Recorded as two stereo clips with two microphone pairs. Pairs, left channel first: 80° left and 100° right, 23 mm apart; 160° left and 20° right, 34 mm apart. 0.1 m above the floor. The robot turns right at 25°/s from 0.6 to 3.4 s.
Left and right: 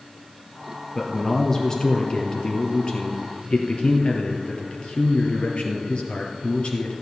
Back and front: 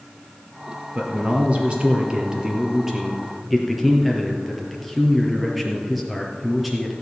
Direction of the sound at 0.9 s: 10° left.